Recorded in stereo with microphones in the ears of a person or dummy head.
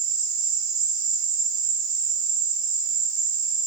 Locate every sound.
0.0 s an insect: 30° right (ahead or behind), 2.5 m